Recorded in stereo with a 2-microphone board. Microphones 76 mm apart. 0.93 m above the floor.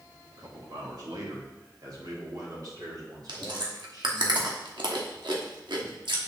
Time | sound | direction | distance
0.4 | a man speaking | 60° right (ahead or behind) | 1.8 m
3.3 | chewing | 75° right (ahead or behind) | 1.1 m